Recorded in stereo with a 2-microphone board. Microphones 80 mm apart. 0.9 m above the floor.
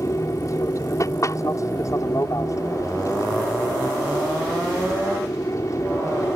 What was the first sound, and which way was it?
An aircraft, 45° left (ahead or behind).